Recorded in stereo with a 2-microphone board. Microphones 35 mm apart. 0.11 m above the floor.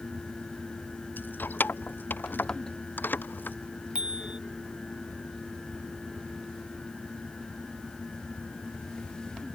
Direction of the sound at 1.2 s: 75° left (ahead or behind).